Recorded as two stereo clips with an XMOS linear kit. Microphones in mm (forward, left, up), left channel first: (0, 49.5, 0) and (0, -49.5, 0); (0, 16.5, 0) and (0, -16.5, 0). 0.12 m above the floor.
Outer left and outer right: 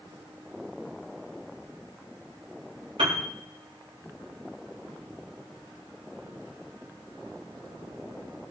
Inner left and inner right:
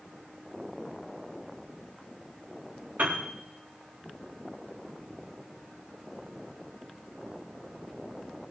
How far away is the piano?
About 4 m.